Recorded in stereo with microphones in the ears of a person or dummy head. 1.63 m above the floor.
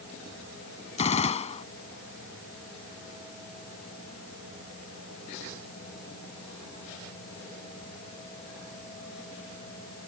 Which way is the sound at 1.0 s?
30° left (ahead or behind).